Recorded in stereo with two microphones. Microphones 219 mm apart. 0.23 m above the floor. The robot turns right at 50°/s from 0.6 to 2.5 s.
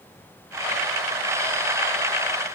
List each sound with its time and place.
Only background noise.